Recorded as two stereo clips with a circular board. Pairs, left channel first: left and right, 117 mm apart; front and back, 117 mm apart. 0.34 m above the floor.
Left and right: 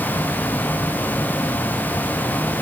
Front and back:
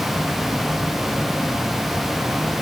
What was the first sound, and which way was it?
Only background noise.